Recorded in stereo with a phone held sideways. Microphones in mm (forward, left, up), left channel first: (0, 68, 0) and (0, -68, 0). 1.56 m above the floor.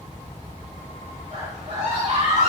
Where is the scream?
45° right (ahead or behind), 3.5 m.